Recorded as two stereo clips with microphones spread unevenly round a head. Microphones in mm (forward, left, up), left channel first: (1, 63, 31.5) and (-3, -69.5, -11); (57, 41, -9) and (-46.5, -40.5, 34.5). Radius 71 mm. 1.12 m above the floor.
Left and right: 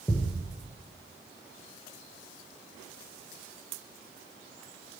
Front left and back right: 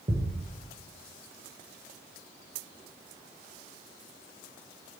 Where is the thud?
165° left, 8 m.